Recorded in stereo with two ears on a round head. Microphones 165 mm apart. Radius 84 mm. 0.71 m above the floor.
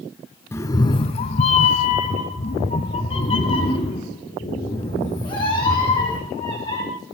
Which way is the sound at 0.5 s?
15° left (ahead or behind).